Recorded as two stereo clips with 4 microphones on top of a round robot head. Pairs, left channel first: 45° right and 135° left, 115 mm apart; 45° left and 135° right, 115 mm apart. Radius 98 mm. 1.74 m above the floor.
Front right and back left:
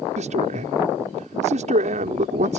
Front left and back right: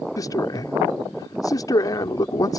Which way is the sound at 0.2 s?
105° left.